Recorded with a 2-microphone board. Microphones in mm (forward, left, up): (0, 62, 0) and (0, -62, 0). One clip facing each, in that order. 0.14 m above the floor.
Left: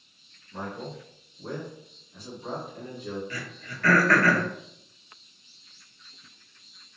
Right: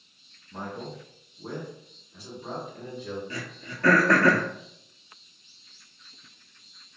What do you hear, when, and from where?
0.5 s a man speaking: 25° right (ahead or behind), 1.8 m; by 3.2 s 10° left (ahead or behind), 1.6 m
3.3 s throat clearing: 25° right (ahead or behind), 0.7 m